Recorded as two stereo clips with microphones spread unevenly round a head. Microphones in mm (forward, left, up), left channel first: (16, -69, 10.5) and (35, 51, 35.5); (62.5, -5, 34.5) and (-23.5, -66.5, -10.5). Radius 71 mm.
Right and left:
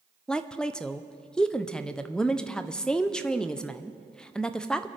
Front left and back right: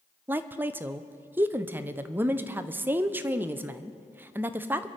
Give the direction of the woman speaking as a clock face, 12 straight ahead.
5 o'clock.